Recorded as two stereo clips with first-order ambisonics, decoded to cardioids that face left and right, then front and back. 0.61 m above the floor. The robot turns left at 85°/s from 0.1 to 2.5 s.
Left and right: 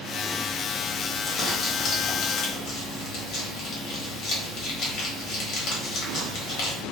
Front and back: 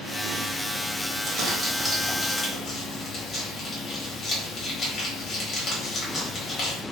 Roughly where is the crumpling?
Behind.